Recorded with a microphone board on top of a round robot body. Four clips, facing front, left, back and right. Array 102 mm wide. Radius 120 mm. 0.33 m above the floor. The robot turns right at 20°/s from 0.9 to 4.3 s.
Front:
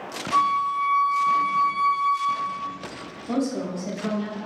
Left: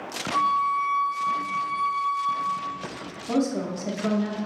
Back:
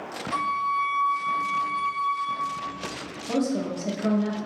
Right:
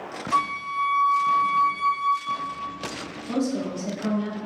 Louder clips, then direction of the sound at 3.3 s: Left 1 dB, even; 60° left.